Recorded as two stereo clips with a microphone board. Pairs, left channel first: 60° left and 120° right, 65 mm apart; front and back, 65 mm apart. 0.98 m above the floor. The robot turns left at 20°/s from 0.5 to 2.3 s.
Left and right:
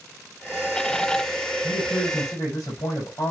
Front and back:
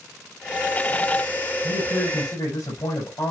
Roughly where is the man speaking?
Ahead left.